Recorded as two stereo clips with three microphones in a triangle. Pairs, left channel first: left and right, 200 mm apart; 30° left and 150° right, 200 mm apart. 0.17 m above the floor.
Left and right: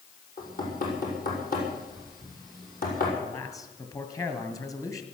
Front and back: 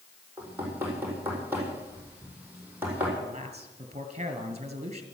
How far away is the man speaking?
About 2.5 m.